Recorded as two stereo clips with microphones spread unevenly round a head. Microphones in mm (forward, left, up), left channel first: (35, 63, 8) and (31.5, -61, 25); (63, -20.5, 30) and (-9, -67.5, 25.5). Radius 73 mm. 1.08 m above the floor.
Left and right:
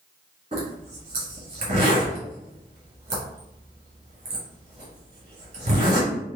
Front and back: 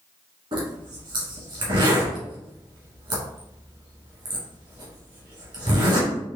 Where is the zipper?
130° right, 1.9 m.